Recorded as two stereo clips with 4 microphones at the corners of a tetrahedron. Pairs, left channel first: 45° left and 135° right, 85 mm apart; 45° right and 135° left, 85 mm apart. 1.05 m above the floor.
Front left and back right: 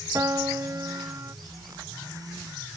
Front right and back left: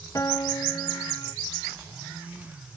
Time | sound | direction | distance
0.1 | a piano | 90° right | ?